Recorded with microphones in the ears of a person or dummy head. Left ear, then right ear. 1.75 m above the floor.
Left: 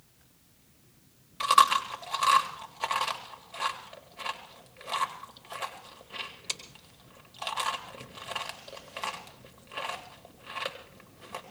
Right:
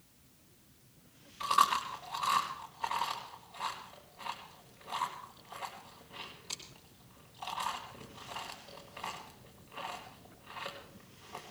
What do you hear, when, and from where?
1.4 s chewing: 30° left (ahead or behind), 1.7 m